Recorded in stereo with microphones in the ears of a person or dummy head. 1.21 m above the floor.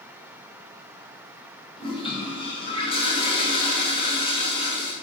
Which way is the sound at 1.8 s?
25° left (ahead or behind).